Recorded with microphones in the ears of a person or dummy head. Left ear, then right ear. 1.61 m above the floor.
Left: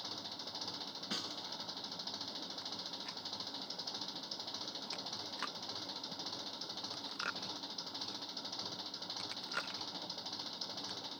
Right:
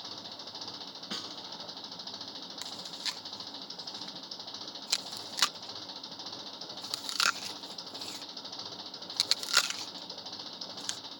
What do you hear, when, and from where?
0.0 s an engine running: 5° right (ahead or behind)
1.1 s a snare drum: 10° right (ahead or behind)
2.6 s chewing: 75° right (ahead or behind)